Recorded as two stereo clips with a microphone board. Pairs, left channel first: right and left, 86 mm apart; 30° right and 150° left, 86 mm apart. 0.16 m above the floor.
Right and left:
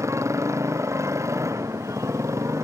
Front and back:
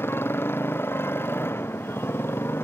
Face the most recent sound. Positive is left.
turn(degrees=35)